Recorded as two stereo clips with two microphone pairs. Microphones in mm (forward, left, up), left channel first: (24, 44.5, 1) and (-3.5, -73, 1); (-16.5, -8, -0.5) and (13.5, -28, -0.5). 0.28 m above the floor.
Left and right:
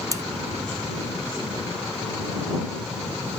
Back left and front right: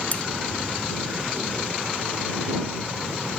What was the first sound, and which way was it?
Cutlery clinking, 165° right.